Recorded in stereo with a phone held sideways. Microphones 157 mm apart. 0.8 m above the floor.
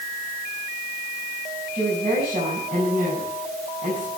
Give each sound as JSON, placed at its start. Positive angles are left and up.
{"t": 1.7, "sound": "a woman speaking", "side_deg": -60, "distance_m": 5.5}